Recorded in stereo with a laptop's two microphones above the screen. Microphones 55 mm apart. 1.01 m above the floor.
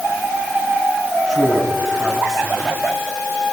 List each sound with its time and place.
1.3 s a man speaking: 5° right (ahead or behind), 9.5 m